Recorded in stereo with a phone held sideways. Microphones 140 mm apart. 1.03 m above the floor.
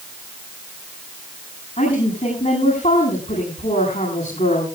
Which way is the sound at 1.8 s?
60° left (ahead or behind).